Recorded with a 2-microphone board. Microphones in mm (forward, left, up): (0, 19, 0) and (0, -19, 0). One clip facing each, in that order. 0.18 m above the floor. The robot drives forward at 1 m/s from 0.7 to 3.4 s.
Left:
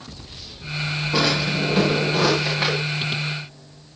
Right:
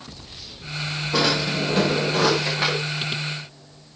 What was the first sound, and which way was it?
A drawer, centre (ahead or behind).